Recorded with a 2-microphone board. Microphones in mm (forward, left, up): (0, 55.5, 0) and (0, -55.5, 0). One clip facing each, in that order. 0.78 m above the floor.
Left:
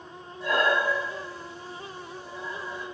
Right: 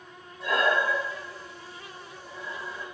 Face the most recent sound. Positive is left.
turn(degrees=-75)  # may be behind; listen again after turning